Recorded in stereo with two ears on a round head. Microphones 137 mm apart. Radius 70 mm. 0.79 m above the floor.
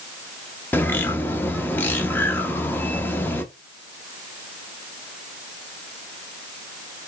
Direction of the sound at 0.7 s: 15° left (ahead or behind).